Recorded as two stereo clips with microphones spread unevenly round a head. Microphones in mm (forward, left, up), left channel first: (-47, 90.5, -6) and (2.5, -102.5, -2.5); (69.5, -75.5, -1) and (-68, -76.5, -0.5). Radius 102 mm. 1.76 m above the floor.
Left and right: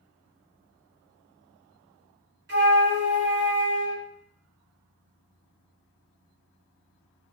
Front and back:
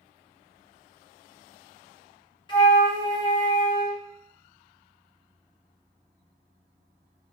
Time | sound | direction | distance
2.5 | a flute | 50° right | 0.9 m